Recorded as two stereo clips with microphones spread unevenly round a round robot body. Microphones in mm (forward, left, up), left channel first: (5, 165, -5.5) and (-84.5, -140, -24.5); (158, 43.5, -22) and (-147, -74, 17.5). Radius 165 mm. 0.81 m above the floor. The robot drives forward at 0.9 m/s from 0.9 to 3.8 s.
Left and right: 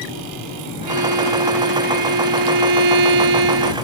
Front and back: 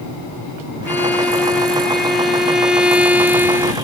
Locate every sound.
0.9 s a violin: 65° right; by 3.7 s 75° right